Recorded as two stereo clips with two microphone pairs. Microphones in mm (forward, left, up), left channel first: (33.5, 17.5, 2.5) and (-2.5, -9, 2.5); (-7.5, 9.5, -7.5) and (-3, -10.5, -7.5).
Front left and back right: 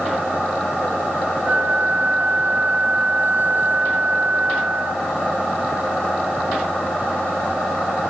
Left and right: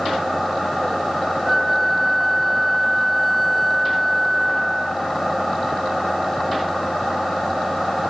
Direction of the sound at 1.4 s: Straight behind.